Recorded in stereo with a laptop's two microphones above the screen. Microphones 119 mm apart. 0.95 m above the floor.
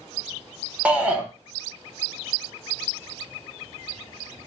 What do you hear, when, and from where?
0.8 s a shout: 10° right (ahead or behind), 0.6 m